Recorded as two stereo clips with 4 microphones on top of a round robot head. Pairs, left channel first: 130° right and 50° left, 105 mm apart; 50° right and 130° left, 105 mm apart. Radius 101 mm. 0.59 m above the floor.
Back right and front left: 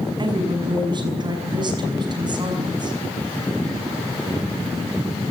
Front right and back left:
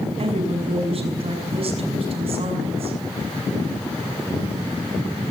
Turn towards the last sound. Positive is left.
turn(degrees=100)